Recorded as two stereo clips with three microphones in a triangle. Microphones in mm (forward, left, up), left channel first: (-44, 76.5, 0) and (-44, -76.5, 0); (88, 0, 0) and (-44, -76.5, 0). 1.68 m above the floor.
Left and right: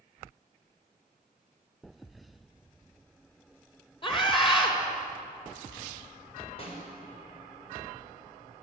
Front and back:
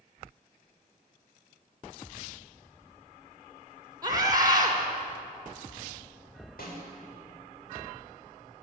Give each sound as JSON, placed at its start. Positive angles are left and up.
{"t": 4.0, "sound": "a scream", "azimuth_deg": 145, "distance_m": 5.5}
{"t": 6.6, "sound": "a snare drum", "azimuth_deg": 40, "distance_m": 6.5}